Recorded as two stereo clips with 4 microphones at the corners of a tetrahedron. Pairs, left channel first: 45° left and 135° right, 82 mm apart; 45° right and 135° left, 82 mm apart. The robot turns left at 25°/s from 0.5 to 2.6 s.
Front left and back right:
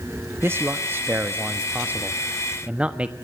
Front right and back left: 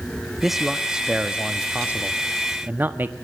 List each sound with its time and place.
0.4 s a man speaking: 140° right, 1.1 m; by 3.1 s 165° left, 1.1 m